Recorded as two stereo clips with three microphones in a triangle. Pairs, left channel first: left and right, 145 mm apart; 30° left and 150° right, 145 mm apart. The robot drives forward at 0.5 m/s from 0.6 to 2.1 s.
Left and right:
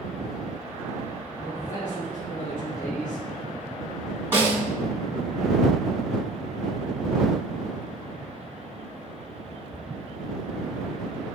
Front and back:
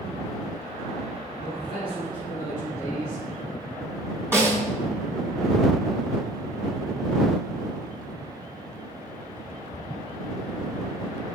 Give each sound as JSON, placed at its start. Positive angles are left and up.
{"t": 1.4, "sound": "a man speaking", "azimuth_deg": 80, "distance_m": 2.5}
{"t": 4.3, "sound": "a snare drum", "azimuth_deg": -125, "distance_m": 1.7}